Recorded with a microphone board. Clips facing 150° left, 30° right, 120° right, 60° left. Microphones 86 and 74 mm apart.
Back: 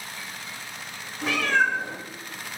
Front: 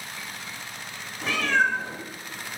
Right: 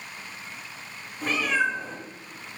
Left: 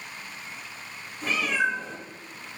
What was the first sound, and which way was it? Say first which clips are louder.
A cat meowing: back 1 dB, right 1 dB; 125° right.